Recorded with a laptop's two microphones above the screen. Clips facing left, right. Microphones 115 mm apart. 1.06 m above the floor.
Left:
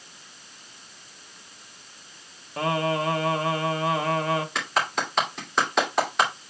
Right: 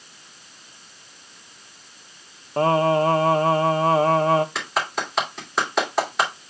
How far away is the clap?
About 2.5 m.